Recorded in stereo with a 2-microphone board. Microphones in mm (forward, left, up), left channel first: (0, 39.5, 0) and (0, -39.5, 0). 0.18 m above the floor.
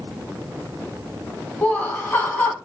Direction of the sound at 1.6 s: 20° left (ahead or behind).